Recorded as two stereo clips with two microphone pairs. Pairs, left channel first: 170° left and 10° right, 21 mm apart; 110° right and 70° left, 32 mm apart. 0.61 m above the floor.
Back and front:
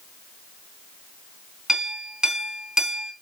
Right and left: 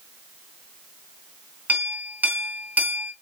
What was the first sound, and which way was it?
A clink, 45° left.